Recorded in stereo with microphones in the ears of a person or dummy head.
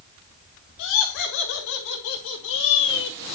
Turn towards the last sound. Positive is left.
turn(degrees=65)  # may be behind; listen again after turning